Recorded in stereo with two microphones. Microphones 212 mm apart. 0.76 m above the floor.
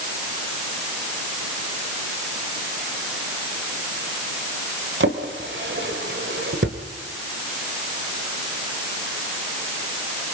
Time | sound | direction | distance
5.0 | a drawer | 70° right (ahead or behind) | 1.5 m